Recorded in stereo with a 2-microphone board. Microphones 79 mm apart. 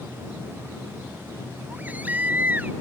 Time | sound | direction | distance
1.7 | a baby crying | 20° right (ahead or behind) | ?